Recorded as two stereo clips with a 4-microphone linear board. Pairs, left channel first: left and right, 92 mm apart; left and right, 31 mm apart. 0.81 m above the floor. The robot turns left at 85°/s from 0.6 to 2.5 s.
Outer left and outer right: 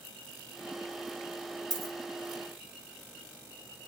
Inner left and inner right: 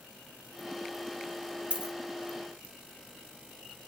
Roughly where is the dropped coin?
Right.